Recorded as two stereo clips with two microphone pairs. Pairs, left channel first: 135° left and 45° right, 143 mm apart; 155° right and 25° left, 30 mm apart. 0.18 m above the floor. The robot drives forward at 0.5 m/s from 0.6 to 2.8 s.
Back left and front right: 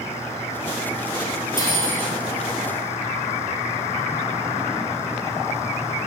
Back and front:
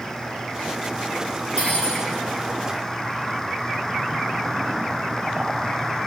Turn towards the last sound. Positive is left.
turn(degrees=-115)